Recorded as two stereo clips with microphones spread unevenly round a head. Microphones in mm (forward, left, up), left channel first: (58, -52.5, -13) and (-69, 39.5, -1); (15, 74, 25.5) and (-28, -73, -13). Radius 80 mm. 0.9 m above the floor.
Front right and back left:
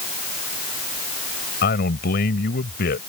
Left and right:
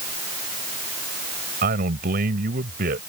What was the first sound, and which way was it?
A man speaking, 65° right.